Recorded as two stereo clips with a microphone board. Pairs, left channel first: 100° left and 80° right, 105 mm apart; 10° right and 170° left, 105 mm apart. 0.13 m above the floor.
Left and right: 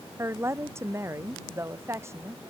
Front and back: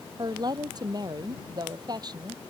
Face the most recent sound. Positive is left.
turn(degrees=-140)